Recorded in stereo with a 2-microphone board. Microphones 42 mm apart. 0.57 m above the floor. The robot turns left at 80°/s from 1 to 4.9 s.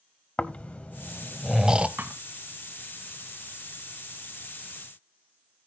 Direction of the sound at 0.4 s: 35° left (ahead or behind).